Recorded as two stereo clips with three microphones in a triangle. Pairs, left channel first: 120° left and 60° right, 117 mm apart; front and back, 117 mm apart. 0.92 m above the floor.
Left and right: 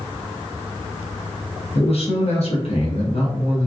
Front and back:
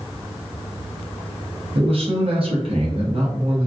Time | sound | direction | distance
1.8 | a man speaking | 145° left | 0.9 m